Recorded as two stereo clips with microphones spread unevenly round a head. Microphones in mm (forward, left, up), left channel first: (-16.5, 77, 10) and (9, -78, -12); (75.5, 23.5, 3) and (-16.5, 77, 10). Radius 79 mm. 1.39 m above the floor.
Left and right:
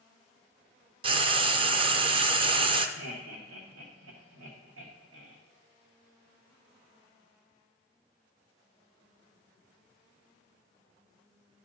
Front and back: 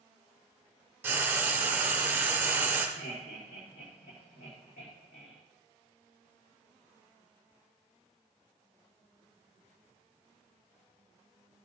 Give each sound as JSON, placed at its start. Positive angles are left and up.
{"t": 1.0, "sound": "frying", "azimuth_deg": -135, "distance_m": 0.6}
{"t": 3.0, "sound": "laughter", "azimuth_deg": -70, "distance_m": 1.5}